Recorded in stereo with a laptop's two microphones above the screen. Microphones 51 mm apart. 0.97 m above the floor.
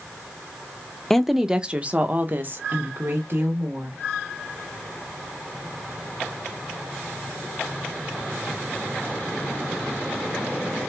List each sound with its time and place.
1.1 s a woman speaking: 5° left (ahead or behind), 0.5 m; by 4.0 s 55° right (ahead or behind), 1.6 m